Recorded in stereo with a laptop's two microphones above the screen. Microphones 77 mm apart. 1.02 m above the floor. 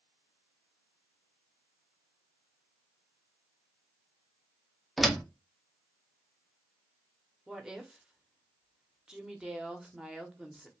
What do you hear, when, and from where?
5.0 s a door slam: centre (ahead or behind), 0.8 m
7.5 s a woman speaking: 10° right (ahead or behind), 0.7 m